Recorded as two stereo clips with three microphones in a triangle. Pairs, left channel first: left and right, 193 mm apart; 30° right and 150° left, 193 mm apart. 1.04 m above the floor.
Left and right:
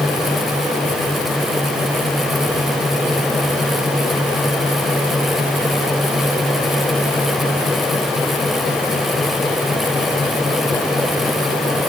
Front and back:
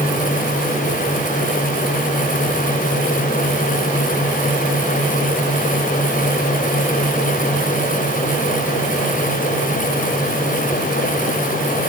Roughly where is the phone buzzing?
I don't hear a phone buzzing.